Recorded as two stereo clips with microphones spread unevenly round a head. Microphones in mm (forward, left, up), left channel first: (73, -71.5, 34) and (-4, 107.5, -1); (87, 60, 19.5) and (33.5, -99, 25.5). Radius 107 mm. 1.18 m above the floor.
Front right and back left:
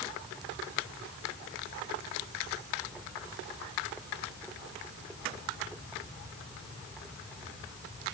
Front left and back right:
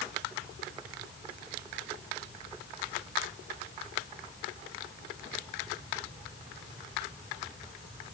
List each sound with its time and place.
Only background noise.